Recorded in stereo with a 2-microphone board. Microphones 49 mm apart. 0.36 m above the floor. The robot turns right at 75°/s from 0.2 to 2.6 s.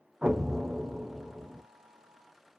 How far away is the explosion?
About 0.5 m.